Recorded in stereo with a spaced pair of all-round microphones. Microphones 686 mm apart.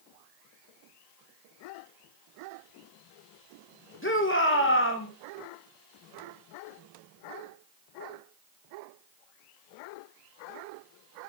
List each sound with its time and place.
4.0 s a shout: 15° left (ahead or behind), 2.5 m